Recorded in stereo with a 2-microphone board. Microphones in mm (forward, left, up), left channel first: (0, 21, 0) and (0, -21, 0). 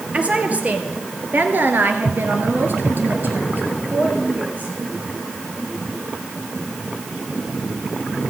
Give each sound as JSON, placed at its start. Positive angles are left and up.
{"t": 0.1, "sound": "a woman speaking", "side_deg": -30, "distance_m": 2.5}